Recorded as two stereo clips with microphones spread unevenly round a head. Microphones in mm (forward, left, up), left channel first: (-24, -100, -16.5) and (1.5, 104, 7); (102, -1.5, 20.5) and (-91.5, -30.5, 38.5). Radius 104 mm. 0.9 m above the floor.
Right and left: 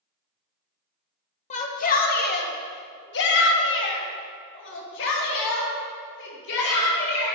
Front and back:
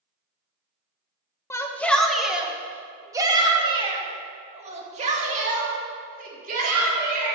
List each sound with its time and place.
1.5 s a shout: 60° right, 1.3 m; by 7.3 s 125° right, 3.5 m